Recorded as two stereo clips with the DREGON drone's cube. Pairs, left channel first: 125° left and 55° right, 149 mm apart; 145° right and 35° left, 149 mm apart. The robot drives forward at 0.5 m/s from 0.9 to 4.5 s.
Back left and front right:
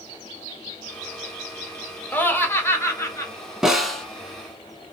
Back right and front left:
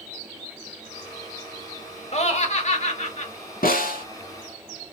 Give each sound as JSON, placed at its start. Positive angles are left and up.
{"t": 2.1, "sound": "laughter", "azimuth_deg": -160, "distance_m": 1.2}
{"t": 3.6, "sound": "a snare drum", "azimuth_deg": -140, "distance_m": 0.9}